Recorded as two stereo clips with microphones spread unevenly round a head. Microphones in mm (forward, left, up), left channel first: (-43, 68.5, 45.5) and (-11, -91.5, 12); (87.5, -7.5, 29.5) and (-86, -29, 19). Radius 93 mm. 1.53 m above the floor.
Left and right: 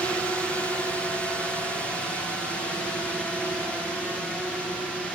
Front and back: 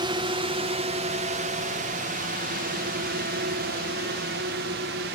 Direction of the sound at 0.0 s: 160° right.